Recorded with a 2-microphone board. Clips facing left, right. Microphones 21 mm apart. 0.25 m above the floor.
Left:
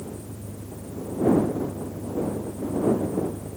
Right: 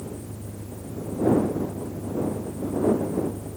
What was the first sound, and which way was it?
An engine running, 75° right (ahead or behind).